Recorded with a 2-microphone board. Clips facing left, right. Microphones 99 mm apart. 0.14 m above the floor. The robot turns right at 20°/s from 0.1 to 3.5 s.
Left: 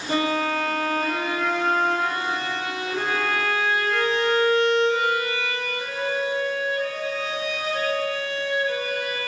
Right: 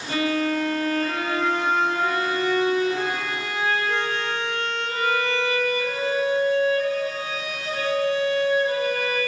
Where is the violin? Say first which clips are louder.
Even; 145° left, 4.5 m; by 9.2 s 150° right, 4.5 m.